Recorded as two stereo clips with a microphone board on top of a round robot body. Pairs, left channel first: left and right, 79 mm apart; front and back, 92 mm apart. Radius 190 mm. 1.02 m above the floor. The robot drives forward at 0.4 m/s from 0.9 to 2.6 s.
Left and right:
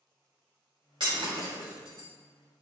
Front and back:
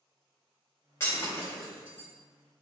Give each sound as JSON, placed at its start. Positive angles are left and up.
{"t": 1.0, "sound": "breaking glass", "azimuth_deg": -65, "distance_m": 3.5}